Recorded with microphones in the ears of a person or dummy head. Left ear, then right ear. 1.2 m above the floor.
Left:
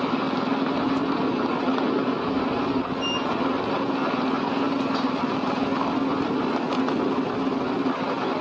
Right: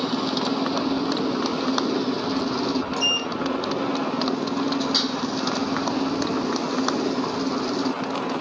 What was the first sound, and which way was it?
A motorcycle, 70° right (ahead or behind).